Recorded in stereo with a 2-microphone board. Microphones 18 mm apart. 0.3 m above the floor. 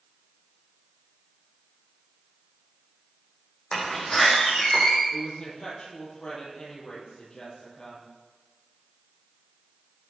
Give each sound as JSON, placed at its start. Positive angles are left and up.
{"t": 3.7, "sound": "a door slam", "side_deg": 30, "distance_m": 9.0}
{"t": 5.1, "sound": "a woman speaking", "side_deg": 45, "distance_m": 9.0}